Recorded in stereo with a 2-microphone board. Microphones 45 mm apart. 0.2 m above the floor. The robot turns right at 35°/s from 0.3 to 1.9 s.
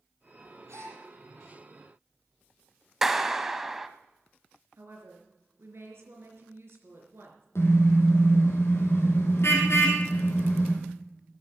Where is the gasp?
65° right (ahead or behind), 7.5 m; by 1.0 s 75° right (ahead or behind), 7.5 m.